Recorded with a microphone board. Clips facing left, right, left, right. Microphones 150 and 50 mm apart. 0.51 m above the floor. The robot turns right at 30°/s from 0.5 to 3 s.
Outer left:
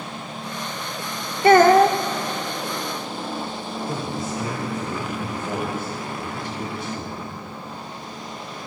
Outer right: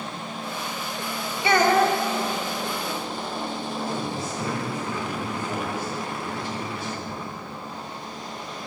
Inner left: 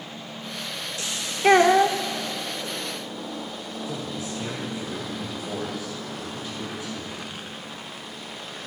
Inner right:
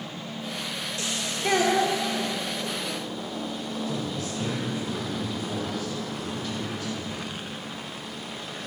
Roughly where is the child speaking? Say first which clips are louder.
Outer left 7 dB, inner left 7 dB; left.